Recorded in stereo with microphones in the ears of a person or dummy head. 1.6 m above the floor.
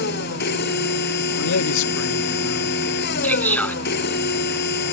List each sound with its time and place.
0.0 s a machine running: 60° left (ahead or behind)
1.4 s a man speaking: 75° left (ahead or behind)
3.2 s a man speaking: 10° left (ahead or behind)